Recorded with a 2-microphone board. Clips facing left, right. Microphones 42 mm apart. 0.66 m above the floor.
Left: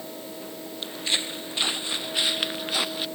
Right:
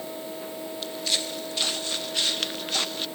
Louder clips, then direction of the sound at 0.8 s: Left 2 dB; 30° left (ahead or behind).